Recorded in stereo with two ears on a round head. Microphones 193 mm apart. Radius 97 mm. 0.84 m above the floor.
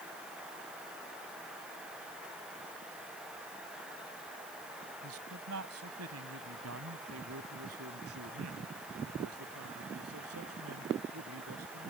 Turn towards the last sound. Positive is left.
turn(degrees=-80)